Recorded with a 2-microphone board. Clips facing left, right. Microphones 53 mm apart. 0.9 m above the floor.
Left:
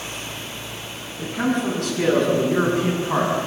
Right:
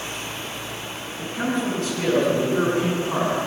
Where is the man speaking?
70° left (ahead or behind), 8.5 m.